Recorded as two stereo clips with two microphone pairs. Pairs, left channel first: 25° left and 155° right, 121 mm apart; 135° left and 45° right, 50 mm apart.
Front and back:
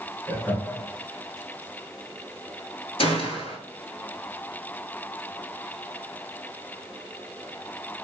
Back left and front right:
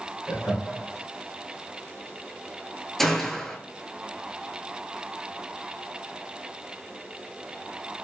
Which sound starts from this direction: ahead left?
A gunshot, at 3.0 s.